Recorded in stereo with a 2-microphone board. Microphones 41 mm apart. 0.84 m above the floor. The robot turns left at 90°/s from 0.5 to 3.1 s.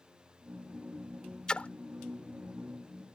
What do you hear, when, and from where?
1.5 s a splash: 20° left (ahead or behind); by 1.7 s 40° left (ahead or behind)